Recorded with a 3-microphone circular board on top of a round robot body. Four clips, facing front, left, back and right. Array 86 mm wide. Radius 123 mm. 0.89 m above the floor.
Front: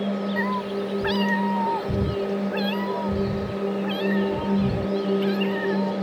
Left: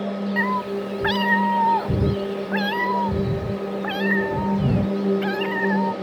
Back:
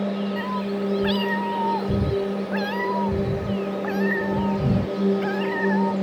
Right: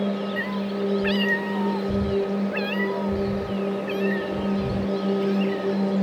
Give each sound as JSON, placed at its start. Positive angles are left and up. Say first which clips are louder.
{"t": 0.4, "sound": "a cat meowing", "louder": "left 3 dB, even", "azimuth_deg": 75}